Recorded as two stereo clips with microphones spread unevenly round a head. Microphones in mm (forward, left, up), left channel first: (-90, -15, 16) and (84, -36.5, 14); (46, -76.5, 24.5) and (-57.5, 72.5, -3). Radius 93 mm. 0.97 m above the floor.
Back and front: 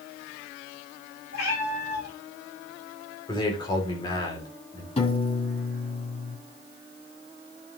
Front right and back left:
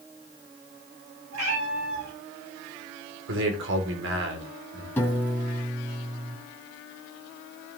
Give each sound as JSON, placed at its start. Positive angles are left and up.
{"t": 1.3, "sound": "a cat meowing", "azimuth_deg": 125, "distance_m": 7.5}
{"t": 3.3, "sound": "a man speaking", "azimuth_deg": 105, "distance_m": 2.5}
{"t": 5.0, "sound": "a piano", "azimuth_deg": -130, "distance_m": 2.0}